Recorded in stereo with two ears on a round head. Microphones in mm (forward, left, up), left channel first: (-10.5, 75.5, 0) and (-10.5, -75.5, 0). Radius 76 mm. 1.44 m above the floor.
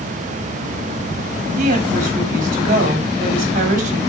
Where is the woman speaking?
50° right (ahead or behind), 4.5 m.